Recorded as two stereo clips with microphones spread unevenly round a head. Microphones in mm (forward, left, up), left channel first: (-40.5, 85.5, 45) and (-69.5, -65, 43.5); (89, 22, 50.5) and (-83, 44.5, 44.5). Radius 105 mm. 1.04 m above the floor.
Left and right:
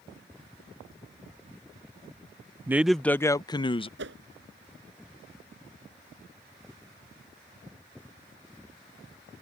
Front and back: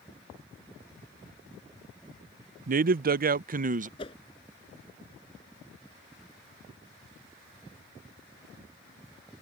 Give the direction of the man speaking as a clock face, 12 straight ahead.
6 o'clock.